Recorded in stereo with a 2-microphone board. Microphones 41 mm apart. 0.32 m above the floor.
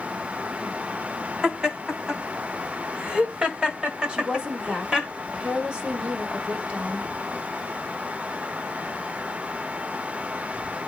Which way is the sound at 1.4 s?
20° right (ahead or behind).